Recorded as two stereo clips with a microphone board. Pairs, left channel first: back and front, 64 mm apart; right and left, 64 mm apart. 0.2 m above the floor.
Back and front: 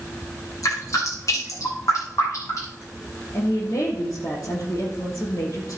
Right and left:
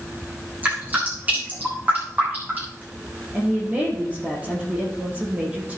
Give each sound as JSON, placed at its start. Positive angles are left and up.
{"t": 0.6, "sound": "dripping", "azimuth_deg": 155, "distance_m": 7.5}
{"t": 3.3, "sound": "a woman speaking", "azimuth_deg": 155, "distance_m": 5.5}